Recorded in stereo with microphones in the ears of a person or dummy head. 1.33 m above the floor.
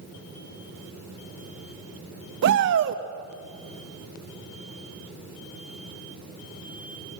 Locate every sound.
2.4 s a shout: 60° right (ahead or behind), 1.1 m